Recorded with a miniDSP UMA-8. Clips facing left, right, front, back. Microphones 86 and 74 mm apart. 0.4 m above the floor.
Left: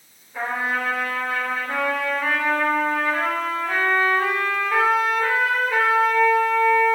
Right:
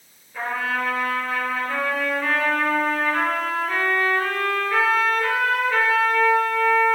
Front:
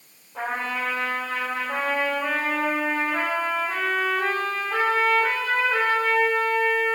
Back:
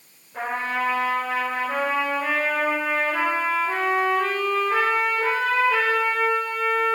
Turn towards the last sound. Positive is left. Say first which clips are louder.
# left 1 dB, back 2 dB
turn(degrees=165)